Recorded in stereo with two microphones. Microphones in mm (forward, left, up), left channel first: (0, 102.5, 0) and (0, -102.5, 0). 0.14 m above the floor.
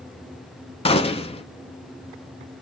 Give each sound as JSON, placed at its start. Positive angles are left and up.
{"t": 0.8, "sound": "a gunshot", "side_deg": 30, "distance_m": 0.5}